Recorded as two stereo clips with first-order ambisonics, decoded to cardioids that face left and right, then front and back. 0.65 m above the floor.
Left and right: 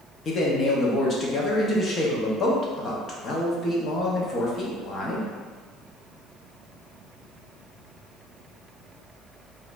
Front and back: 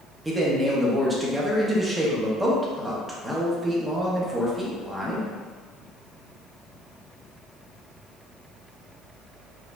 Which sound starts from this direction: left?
A man speaking, at 0.2 s.